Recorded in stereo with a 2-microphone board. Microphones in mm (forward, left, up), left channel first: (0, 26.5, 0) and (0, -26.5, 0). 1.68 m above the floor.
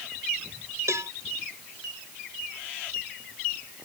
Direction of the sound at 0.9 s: 75° right (ahead or behind).